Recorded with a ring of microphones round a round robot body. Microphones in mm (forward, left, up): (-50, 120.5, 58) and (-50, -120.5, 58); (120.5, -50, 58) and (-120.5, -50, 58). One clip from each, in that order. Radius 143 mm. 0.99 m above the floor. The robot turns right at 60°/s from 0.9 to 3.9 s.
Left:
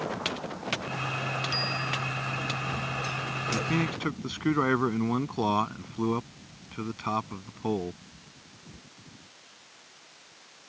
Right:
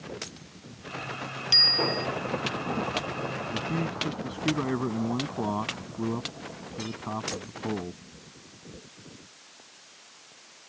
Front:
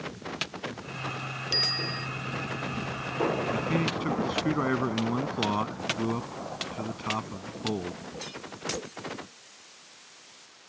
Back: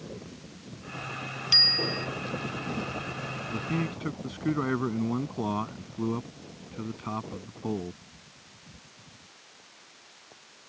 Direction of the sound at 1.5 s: 120° right.